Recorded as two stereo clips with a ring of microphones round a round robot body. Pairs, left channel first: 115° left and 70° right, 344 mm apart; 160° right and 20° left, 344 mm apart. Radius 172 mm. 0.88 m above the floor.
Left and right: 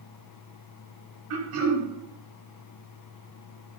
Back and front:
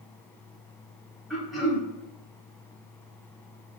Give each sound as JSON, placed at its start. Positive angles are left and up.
{"t": 1.3, "sound": "throat clearing", "azimuth_deg": -65, "distance_m": 0.8}